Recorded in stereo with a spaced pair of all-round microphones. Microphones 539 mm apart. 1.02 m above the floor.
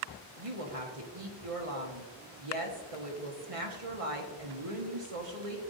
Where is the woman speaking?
80° right, 1.6 m.